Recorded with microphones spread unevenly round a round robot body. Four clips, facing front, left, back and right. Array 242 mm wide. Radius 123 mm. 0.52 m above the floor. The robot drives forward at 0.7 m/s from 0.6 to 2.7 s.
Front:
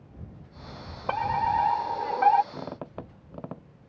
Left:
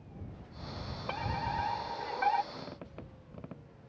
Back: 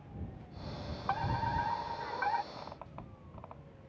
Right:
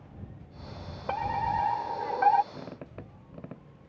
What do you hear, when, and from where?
1.1 s a fire alarm: 25° right; by 2.4 s 35° right
2.5 s a squeak: 15° right